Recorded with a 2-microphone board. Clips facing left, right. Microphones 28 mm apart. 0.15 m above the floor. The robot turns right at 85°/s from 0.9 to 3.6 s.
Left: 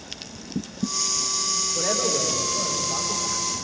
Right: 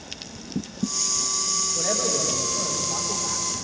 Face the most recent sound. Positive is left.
turn(degrees=-90)